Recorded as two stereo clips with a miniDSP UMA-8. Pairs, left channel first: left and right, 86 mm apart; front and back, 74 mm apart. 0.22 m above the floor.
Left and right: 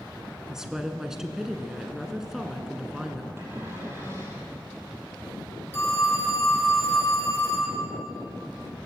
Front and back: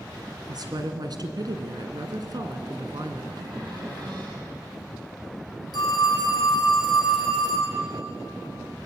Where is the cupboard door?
150° right, 6 m.